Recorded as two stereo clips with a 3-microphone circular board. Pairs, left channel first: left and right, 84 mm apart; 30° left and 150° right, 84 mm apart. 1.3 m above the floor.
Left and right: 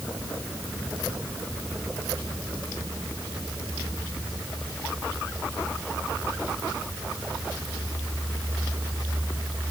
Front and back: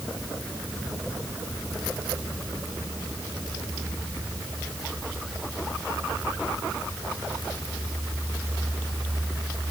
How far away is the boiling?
I don't hear boiling.